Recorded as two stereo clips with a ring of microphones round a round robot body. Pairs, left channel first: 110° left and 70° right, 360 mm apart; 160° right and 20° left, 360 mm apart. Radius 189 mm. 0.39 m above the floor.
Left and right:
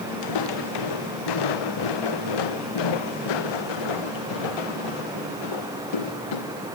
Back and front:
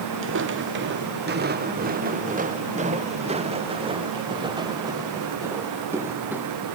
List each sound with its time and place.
0.2 s footsteps: 80° left; by 6.5 s 110° left